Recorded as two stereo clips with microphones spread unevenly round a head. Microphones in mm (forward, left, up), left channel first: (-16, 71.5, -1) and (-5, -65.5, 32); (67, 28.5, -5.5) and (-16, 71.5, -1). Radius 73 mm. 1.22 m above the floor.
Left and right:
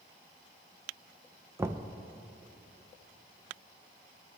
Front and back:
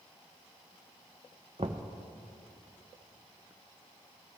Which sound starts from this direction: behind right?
Knocking, at 1.6 s.